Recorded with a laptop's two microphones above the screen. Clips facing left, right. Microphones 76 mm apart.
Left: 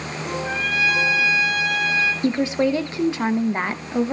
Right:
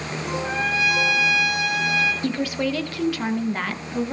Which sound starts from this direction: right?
A trumpet, at 0.4 s.